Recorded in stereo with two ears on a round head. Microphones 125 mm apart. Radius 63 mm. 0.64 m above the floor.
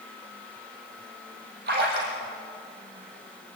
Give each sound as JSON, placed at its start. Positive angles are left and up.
{"t": 1.7, "sound": "a splash", "side_deg": -75, "distance_m": 6.0}